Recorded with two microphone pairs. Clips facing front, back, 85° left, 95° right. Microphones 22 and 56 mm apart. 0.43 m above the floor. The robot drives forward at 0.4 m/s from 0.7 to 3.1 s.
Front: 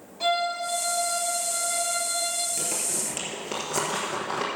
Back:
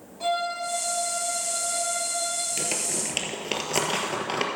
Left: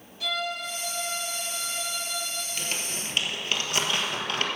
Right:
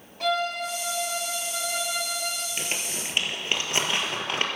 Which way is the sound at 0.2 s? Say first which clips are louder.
Front 2 dB, right 5 dB; 55° right.